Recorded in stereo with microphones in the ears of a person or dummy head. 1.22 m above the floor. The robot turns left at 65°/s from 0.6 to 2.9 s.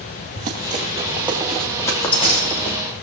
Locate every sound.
0.3 s running footsteps: 40° right (ahead or behind), 2 m; by 2.8 s 65° left (ahead or behind), 3.5 m